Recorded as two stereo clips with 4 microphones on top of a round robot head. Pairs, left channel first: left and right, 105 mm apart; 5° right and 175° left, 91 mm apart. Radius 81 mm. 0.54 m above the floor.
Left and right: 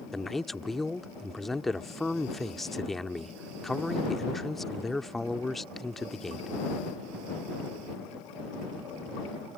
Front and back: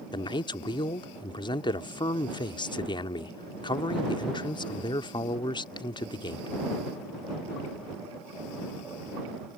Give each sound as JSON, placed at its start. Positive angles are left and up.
{"t": 0.1, "sound": "a man speaking", "azimuth_deg": 5}